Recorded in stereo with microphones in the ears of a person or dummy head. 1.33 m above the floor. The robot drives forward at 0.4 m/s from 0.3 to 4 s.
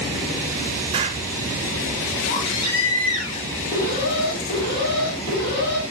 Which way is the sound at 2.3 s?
30° left (ahead or behind).